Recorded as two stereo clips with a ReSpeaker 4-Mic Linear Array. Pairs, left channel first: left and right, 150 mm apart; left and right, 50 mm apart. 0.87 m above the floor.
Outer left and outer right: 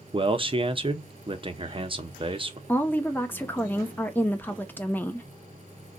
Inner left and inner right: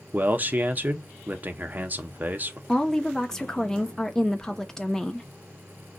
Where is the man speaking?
35° right (ahead or behind), 0.7 m.